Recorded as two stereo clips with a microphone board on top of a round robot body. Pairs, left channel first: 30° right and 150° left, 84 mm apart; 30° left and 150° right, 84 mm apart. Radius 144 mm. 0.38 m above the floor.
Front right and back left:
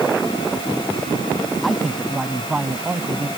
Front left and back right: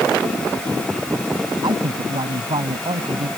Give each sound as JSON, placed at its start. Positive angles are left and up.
{"t": 1.6, "sound": "a man speaking", "azimuth_deg": -120}